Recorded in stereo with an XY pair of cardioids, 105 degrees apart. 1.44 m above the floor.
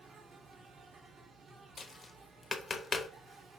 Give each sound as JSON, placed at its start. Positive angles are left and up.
{"t": 0.0, "sound": "an insect", "azimuth_deg": -60, "distance_m": 1.6}
{"t": 1.8, "sound": "tapping", "azimuth_deg": 35, "distance_m": 0.7}